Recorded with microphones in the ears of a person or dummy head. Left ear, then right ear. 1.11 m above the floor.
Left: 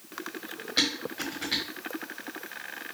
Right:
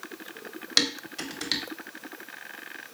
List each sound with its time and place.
0.8 s dishes clattering: 75° right (ahead or behind), 1.3 m